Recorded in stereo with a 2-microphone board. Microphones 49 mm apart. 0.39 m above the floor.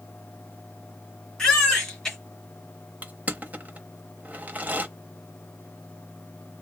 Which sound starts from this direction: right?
Crushing, at 3.0 s.